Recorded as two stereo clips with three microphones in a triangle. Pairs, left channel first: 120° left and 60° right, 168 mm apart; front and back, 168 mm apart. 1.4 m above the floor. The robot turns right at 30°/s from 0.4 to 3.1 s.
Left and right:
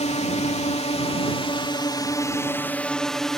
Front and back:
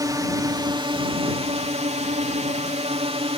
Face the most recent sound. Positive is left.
turn(degrees=-155)